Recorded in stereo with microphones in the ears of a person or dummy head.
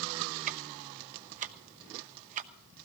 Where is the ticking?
40° right (ahead or behind), 0.8 m.